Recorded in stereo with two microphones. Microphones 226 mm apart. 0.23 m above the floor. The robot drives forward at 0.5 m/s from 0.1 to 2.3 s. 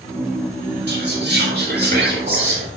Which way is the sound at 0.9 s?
50° right (ahead or behind).